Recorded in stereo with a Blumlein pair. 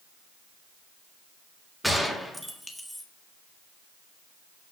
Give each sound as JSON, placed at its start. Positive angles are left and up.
{"t": 1.8, "sound": "a gunshot", "azimuth_deg": 0, "distance_m": 1.9}